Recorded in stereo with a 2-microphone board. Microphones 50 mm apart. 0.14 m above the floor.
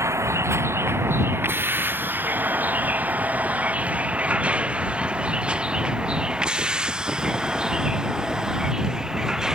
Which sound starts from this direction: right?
A vehicle, at 0.0 s.